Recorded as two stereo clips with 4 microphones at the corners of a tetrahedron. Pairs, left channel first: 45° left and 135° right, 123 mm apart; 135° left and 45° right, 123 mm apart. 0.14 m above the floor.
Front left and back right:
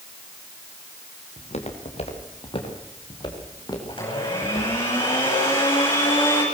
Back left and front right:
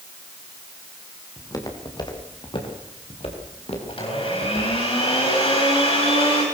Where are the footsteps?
70° left, 4.5 m; by 4.8 s 110° left, 7 m.